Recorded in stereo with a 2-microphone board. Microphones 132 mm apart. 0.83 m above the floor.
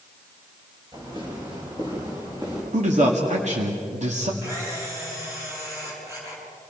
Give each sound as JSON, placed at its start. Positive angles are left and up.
{"t": 0.9, "sound": "footsteps", "side_deg": -35, "distance_m": 9.0}
{"t": 2.7, "sound": "a man speaking", "side_deg": -60, "distance_m": 2.0}
{"t": 4.4, "sound": "a camera shutter", "side_deg": -20, "distance_m": 6.5}